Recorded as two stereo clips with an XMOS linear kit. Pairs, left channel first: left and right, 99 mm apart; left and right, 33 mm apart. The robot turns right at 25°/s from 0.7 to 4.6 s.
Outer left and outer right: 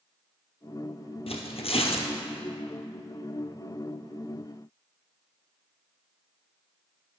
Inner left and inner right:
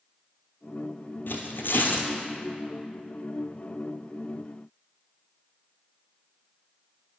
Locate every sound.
1.3 s tearing paper: 85° left, 1.0 m; by 2.1 s 70° left (ahead or behind), 1.0 m